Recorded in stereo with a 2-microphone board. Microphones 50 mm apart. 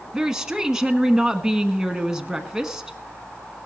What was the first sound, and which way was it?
A woman speaking, 10° right (ahead or behind).